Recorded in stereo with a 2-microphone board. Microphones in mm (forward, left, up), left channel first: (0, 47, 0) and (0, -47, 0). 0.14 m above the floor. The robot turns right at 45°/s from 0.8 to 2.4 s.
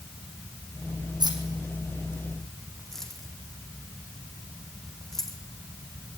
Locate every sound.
1.2 s keys jangling: 50° right (ahead or behind), 4.5 m; by 5.4 s 5° left (ahead or behind), 4.5 m